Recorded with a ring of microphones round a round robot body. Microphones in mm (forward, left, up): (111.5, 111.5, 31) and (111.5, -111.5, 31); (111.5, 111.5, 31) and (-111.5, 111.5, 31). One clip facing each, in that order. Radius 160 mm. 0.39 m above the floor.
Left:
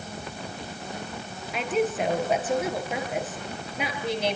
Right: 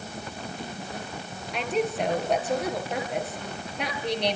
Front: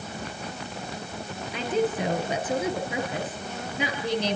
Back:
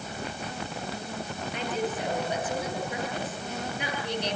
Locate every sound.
1.5 s a woman speaking: 5° left, 7.5 m